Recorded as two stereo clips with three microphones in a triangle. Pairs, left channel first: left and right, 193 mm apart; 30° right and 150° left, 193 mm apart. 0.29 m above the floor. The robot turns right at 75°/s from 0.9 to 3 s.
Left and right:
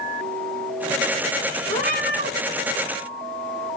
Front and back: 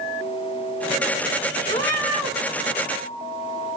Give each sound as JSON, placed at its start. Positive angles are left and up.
{"t": 1.7, "sound": "a cat meowing", "azimuth_deg": 25, "distance_m": 1.4}